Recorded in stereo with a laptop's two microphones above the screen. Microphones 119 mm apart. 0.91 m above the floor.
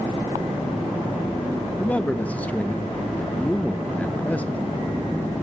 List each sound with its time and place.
1.8 s a man speaking: 10° left (ahead or behind), 0.8 m